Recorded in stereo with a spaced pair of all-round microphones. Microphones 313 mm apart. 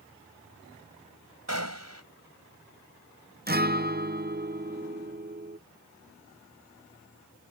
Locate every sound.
1.5 s a gunshot: 55° right (ahead or behind)
3.5 s a guitar: 30° right (ahead or behind)